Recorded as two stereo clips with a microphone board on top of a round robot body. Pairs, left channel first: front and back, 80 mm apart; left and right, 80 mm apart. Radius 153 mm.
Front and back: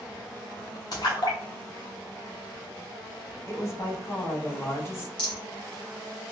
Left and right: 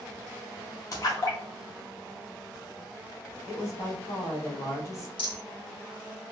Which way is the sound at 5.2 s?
80° left.